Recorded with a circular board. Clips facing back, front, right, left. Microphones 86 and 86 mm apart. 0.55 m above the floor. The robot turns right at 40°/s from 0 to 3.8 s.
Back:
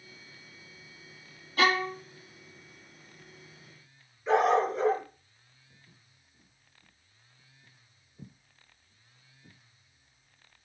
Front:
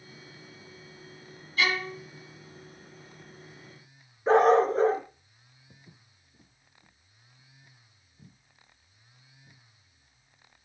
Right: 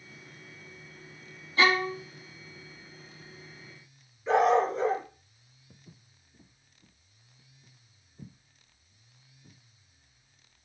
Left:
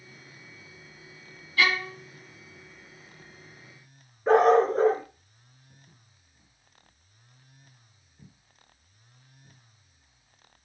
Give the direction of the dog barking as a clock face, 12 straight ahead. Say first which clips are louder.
Front 4 dB, left 4 dB; 10 o'clock.